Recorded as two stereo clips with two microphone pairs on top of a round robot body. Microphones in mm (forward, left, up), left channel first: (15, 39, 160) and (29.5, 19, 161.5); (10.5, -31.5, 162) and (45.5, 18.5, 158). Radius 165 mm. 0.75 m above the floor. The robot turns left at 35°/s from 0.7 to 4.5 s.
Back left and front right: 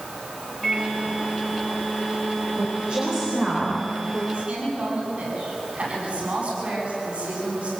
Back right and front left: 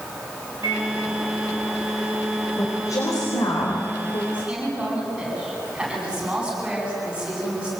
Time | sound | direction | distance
0.6 | a microwave | 50° left | 5 m
2.6 | a woman speaking | 75° right | 4.5 m
4.3 | a woman speaking | 15° right | 8.5 m